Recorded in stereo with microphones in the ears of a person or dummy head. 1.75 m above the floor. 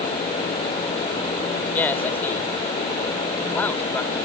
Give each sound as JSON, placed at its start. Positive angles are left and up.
{"t": 1.7, "sound": "a man speaking", "side_deg": 15}